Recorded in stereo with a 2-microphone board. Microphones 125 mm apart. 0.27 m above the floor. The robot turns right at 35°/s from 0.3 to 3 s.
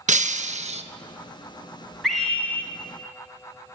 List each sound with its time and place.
0.1 s breaking glass: 75° right (ahead or behind), 0.7 m; by 0.8 s 60° right (ahead or behind), 0.7 m
2.0 s a scream: centre (ahead or behind), 1.9 m; by 2.7 s 20° left (ahead or behind), 1.9 m